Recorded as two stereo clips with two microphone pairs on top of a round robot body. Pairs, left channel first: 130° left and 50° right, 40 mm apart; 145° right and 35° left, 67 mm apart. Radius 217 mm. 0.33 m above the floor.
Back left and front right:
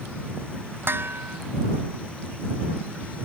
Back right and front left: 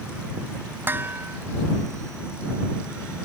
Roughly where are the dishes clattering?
Ahead right.